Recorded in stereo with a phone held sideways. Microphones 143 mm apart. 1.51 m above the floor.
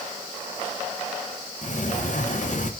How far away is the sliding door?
About 0.8 m.